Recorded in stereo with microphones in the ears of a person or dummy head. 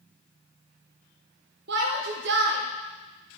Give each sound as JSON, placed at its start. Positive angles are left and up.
{"t": 1.7, "sound": "a shout", "side_deg": -65, "distance_m": 1.2}